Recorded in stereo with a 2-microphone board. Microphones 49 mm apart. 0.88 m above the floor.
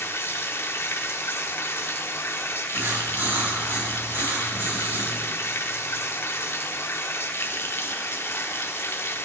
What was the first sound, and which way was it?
Running water, 55° left (ahead or behind).